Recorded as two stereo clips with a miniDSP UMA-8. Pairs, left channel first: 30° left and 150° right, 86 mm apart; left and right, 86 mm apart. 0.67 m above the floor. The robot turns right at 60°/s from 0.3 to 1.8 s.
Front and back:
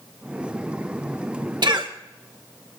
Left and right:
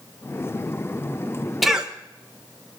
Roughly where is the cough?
Behind.